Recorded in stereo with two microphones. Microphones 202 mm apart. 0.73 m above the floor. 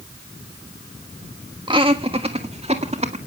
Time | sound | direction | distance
1.7 | laughter | 25° right (ahead or behind) | 1.3 m